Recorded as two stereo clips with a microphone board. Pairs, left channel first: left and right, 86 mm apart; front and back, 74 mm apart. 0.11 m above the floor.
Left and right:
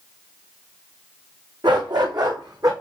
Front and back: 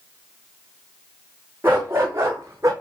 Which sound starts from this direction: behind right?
A dog barking, at 1.6 s.